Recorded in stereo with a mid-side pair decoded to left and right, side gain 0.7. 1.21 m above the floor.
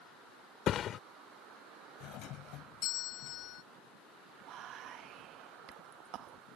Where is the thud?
45° left.